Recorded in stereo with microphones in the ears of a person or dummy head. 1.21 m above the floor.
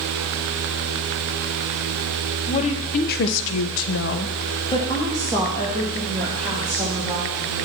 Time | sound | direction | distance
2.5 | a woman speaking | 35° left (ahead or behind) | 1.1 m